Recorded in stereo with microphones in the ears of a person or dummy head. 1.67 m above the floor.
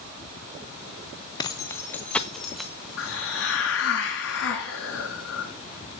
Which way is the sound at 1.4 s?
25° left (ahead or behind).